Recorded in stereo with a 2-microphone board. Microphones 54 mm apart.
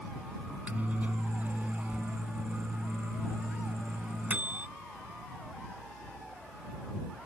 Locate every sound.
0.5 s a microwave: 30° right (ahead or behind)